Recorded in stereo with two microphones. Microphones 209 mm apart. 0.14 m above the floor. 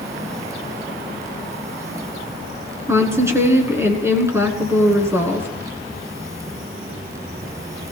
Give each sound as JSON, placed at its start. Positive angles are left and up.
{"t": 2.9, "sound": "a woman speaking", "side_deg": -10, "distance_m": 1.5}